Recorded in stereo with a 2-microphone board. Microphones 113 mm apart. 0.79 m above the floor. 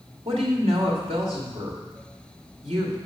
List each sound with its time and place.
0.2 s a woman speaking: 65° right (ahead or behind), 2 m